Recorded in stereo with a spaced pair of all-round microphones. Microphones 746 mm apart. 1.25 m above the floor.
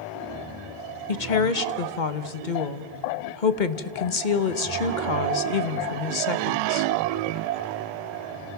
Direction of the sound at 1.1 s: 75° left (ahead or behind).